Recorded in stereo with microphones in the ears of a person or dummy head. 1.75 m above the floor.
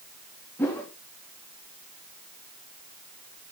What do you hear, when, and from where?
0.6 s a whoosh: 15° left (ahead or behind), 3 m